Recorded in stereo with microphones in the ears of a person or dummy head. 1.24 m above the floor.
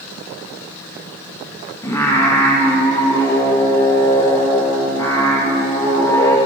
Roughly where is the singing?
Centre.